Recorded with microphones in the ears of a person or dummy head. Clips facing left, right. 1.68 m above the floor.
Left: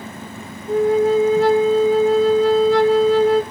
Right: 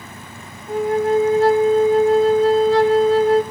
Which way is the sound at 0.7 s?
65° left (ahead or behind).